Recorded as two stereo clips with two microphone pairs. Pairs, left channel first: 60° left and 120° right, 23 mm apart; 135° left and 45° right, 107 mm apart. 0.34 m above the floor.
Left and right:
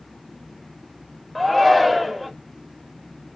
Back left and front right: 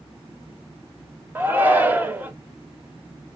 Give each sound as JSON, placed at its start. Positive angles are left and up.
{"t": 1.4, "sound": "a shout", "azimuth_deg": -30, "distance_m": 0.9}